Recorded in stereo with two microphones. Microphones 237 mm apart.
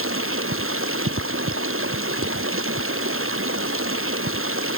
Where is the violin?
No violin in this recording.